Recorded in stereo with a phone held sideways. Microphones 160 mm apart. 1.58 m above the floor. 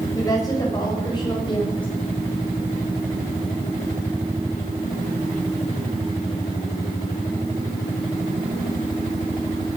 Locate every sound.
0.1 s a woman speaking: 25° left (ahead or behind), 6.5 m; by 1.9 s 35° left (ahead or behind), 7 m